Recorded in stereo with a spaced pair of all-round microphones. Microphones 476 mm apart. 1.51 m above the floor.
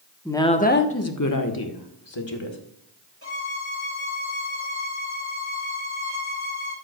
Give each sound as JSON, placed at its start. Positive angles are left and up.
{"t": 0.2, "sound": "a woman speaking", "side_deg": 5, "distance_m": 0.9}
{"t": 3.2, "sound": "a violin", "side_deg": 25, "distance_m": 3.0}